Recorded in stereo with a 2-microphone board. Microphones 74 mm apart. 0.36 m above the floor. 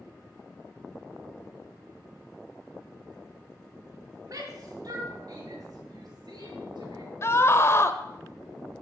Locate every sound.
4.3 s a shout: 60° right (ahead or behind), 4 m; by 7.1 s 70° right (ahead or behind), 6 m
7.2 s a scream: 35° left (ahead or behind), 1.0 m